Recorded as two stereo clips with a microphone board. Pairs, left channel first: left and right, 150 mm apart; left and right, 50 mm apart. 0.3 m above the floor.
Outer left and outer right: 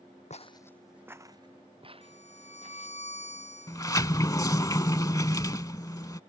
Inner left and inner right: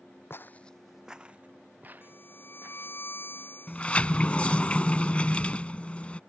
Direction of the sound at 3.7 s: 25° left (ahead or behind).